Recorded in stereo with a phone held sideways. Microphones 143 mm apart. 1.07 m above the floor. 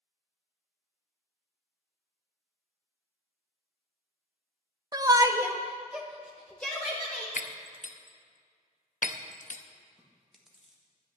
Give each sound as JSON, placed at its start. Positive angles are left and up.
{"t": 4.9, "sound": "a shout", "side_deg": -25, "distance_m": 0.8}
{"t": 7.4, "sound": "breaking glass", "side_deg": 65, "distance_m": 0.6}
{"t": 10.0, "sound": "chewing", "side_deg": -5, "distance_m": 1.5}